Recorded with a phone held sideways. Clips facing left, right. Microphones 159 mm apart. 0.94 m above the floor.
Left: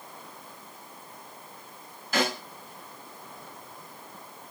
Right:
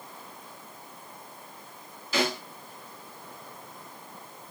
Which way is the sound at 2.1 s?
50° left (ahead or behind).